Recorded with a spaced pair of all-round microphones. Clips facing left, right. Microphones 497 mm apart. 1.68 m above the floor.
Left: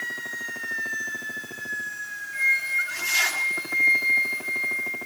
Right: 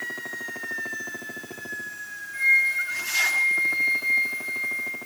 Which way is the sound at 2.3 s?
80° left.